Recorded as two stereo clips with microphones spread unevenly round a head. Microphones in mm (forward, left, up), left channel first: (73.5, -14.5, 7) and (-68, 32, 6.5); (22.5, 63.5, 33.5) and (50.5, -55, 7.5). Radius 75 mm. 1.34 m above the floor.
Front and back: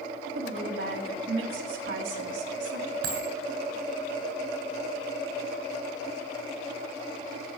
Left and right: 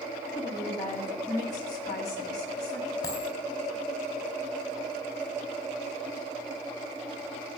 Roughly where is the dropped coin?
Behind.